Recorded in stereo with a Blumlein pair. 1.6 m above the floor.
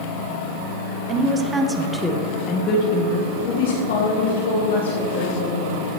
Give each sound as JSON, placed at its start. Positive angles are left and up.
{"t": 1.1, "sound": "a woman speaking", "azimuth_deg": -30, "distance_m": 1.3}